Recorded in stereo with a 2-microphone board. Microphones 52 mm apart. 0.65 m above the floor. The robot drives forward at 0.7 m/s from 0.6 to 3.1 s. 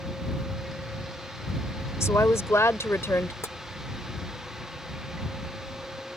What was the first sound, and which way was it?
A woman speaking, 70° left (ahead or behind).